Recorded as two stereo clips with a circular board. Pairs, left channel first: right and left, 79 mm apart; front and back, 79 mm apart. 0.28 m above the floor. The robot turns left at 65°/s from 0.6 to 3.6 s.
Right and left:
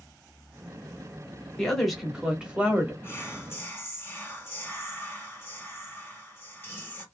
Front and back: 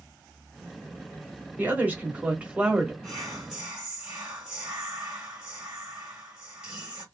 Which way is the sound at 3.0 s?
70° right.